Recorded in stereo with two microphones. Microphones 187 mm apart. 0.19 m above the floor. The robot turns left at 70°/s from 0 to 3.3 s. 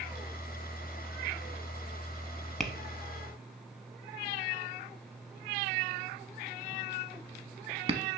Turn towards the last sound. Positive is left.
turn(degrees=-30)  # may be behind; listen again after turning